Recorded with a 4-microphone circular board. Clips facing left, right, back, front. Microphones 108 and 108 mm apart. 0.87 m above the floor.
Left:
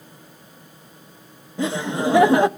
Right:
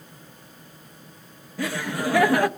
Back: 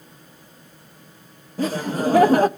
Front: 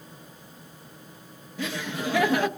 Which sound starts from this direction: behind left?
Laughter, at 1.6 s.